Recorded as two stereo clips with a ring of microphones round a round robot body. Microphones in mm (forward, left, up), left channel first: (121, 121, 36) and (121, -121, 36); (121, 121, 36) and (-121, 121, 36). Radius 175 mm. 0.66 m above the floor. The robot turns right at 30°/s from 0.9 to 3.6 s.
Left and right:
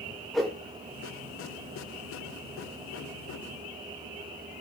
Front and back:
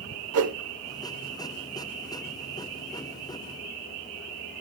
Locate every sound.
0.3 s a whoosh: straight behind, 1.2 m